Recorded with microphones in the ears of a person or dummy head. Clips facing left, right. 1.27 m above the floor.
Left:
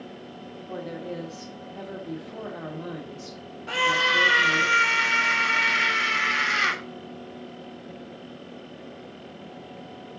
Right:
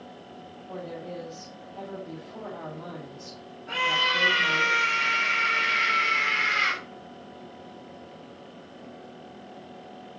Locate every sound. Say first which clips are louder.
0.7 s a woman speaking: left 3 dB; 30° left (ahead or behind), 2.5 m
3.7 s a scream: left 4 dB; 70° left (ahead or behind), 3 m